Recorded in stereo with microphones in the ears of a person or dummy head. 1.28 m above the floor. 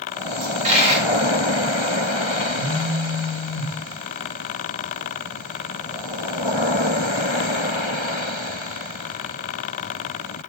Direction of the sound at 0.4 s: 35° right (ahead or behind).